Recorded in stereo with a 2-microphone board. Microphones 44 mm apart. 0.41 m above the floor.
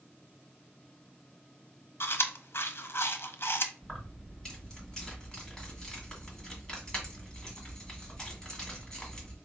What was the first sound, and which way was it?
Chewing, 65° left (ahead or behind).